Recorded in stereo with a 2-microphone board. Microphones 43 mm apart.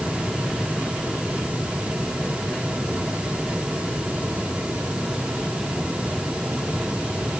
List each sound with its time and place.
Only background noise.